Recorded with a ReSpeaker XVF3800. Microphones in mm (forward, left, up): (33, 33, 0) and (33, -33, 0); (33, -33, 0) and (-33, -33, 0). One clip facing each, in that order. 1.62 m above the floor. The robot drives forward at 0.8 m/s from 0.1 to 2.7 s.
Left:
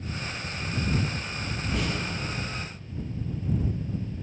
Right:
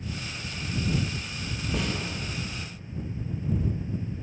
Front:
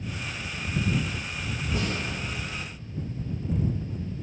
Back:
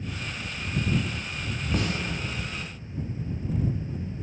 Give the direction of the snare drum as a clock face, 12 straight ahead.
6 o'clock.